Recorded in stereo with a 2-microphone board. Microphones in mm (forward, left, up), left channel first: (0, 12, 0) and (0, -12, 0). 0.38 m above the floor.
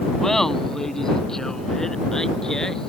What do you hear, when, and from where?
0.2 s laughter: 15° left (ahead or behind); by 2.9 s 25° left (ahead or behind)